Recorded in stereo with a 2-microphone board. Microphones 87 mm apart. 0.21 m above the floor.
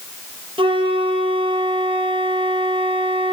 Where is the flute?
75° right (ahead or behind), 2 m.